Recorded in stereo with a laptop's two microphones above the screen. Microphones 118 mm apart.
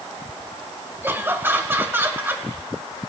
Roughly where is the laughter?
Centre.